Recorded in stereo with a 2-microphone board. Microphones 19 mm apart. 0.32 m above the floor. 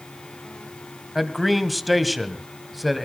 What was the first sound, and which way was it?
A man speaking, centre (ahead or behind).